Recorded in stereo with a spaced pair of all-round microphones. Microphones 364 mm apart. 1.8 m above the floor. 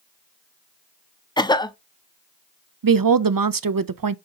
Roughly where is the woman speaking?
Right.